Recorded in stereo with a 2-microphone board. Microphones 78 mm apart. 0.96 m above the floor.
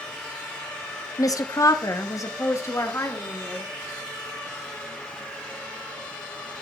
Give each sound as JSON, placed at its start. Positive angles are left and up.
{"t": 1.2, "sound": "a woman speaking", "side_deg": 45, "distance_m": 0.9}